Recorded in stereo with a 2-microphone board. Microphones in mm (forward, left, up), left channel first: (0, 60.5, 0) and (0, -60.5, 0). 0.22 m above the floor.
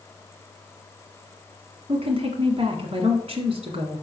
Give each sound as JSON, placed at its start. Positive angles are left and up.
{"t": 1.9, "sound": "a woman speaking", "side_deg": -55, "distance_m": 1.8}